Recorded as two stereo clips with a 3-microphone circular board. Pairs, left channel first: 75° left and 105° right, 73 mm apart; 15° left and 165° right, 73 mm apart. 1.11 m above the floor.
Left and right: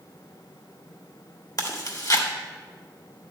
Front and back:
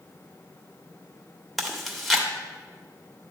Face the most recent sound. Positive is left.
turn(degrees=105)